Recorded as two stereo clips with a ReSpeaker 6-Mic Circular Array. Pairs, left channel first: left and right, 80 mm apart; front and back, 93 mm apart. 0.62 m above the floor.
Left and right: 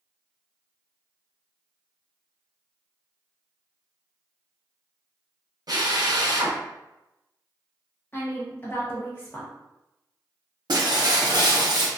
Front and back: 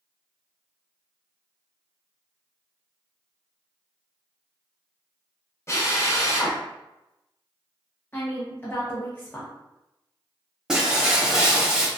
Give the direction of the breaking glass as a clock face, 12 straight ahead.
3 o'clock.